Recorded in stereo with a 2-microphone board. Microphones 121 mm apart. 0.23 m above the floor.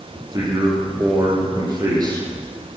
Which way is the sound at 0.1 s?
35° right (ahead or behind).